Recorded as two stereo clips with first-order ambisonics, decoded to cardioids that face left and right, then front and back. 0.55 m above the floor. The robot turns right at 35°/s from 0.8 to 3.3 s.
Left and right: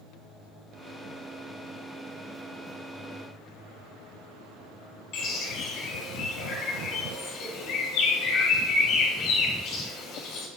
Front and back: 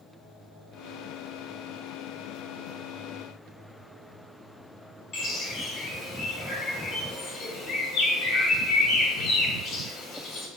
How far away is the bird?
About 1.2 m.